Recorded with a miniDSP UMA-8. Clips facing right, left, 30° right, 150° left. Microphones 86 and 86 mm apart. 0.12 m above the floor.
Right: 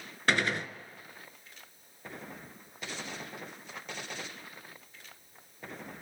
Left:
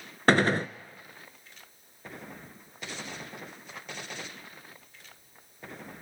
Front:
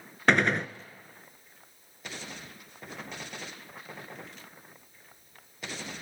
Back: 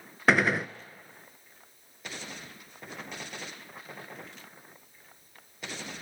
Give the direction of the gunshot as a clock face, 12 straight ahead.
10 o'clock.